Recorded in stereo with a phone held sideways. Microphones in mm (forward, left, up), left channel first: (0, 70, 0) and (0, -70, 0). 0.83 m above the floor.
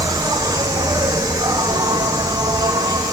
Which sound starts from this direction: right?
An insect, at 0.0 s.